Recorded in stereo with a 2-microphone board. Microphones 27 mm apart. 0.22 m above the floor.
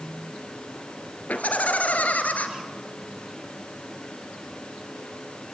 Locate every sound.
1.3 s laughter: 70° left (ahead or behind), 3 m